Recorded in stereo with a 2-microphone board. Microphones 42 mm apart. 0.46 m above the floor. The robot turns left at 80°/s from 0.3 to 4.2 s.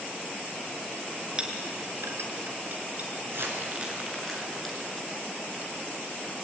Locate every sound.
1.4 s a clink: 20° right (ahead or behind), 3.5 m
3.2 s crumpling: 70° right (ahead or behind), 5 m; by 5.1 s 5° left (ahead or behind), 5 m